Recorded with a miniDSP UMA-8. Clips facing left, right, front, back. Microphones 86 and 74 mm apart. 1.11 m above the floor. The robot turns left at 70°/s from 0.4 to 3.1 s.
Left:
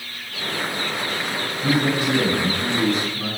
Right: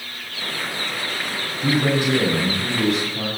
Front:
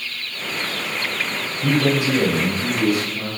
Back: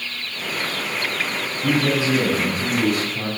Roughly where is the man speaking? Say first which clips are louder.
Right 1 dB, front 1 dB; ahead.